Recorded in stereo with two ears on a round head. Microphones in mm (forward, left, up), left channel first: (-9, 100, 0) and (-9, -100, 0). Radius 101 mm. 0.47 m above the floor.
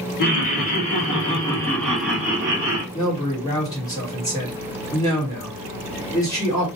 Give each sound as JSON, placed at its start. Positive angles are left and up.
{"t": 0.2, "sound": "laughter", "side_deg": 40, "distance_m": 1.9}
{"t": 2.9, "sound": "a man speaking", "side_deg": 15, "distance_m": 1.5}